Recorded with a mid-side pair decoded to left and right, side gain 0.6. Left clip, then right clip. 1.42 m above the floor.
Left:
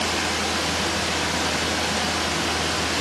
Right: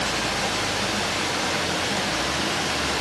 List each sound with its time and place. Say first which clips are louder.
0.0 s running water: left 1 dB; 45° left, 2.5 m